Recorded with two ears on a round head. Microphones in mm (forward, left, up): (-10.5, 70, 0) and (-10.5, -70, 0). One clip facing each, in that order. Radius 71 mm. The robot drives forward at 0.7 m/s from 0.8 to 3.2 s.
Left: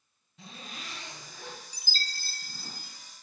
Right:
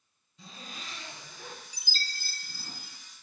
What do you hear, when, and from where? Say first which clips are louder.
0.4 s a zipper: left 1 dB; 50° left (ahead or behind), 4.5 m; by 2.7 s 65° left (ahead or behind), 4 m
1.7 s a chime: left 1 dB; 35° left (ahead or behind), 0.9 m; by 3.0 s 25° left (ahead or behind), 1.5 m